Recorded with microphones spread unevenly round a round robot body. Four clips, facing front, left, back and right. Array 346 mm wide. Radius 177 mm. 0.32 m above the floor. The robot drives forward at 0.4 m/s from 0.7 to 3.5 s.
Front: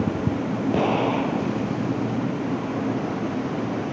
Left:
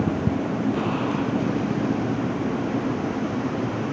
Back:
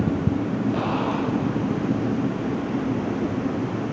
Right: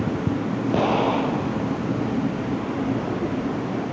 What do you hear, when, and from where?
0.7 s an explosion: 40° right